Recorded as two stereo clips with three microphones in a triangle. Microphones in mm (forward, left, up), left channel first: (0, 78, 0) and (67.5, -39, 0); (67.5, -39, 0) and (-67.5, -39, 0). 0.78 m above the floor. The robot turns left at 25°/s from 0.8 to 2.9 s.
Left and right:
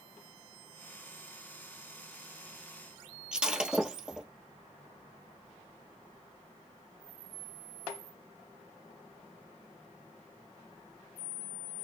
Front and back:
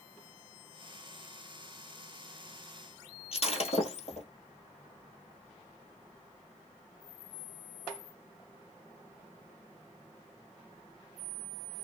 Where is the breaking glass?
25° left, 1.3 m.